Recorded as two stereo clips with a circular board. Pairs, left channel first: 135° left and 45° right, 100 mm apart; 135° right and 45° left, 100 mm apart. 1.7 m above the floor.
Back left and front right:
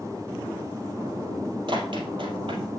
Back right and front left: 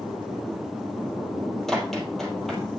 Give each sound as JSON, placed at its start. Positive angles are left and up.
{"t": 1.7, "sound": "running footsteps", "azimuth_deg": -50, "distance_m": 3.0}